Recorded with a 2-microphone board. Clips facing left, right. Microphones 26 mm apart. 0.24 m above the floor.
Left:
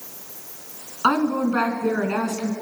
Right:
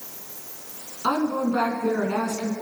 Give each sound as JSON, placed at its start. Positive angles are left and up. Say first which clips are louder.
{"t": 1.0, "sound": "a woman speaking", "louder": "left 3 dB", "side_deg": 60, "distance_m": 3.0}